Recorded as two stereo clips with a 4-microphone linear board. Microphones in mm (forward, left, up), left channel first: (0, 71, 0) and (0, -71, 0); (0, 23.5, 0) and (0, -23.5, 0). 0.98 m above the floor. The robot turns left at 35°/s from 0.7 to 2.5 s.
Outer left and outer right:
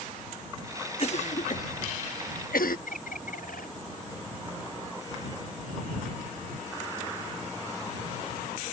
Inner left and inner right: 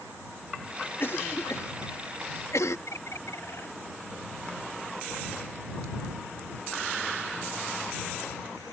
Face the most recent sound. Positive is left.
turn(degrees=75)  # may be behind; listen again after turning